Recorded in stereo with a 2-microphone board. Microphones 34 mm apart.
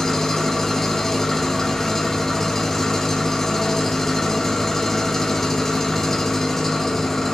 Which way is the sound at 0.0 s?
10° left (ahead or behind).